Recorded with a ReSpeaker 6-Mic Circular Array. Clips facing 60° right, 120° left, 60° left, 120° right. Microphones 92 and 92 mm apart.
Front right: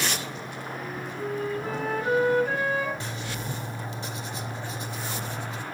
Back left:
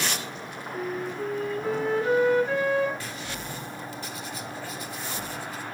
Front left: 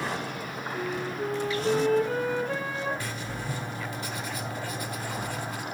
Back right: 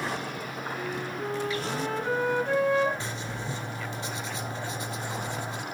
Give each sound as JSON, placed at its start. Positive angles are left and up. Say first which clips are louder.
{"t": 0.7, "sound": "a flute", "louder": "back left 6 dB, front left 3 dB", "azimuth_deg": -135, "distance_m": 7.0}
{"t": 3.0, "sound": "writing", "louder": "front right 1 dB, even", "azimuth_deg": -95, "distance_m": 1.3}